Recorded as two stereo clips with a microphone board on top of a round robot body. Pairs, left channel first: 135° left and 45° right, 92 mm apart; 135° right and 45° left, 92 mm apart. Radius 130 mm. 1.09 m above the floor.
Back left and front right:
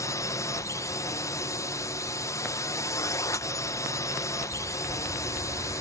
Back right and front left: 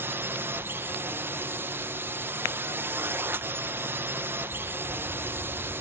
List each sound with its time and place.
0.0 s a drone: 100° left